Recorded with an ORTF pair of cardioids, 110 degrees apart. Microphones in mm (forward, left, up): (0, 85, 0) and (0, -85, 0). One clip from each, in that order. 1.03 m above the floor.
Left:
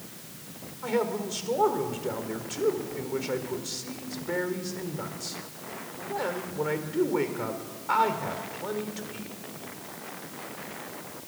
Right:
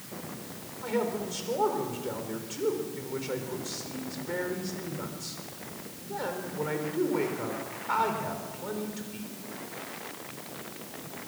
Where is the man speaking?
20° left, 4 m.